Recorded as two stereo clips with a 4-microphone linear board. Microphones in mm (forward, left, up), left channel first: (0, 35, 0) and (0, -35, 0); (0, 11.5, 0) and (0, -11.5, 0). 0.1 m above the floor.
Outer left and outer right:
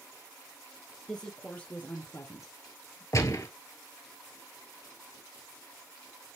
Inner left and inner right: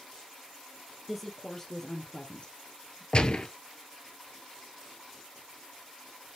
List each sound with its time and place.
1.1 s a woman speaking: 10° left (ahead or behind), 3 m; by 3.0 s 55° left (ahead or behind), 3 m
3.1 s a gunshot: 45° left (ahead or behind), 1.5 m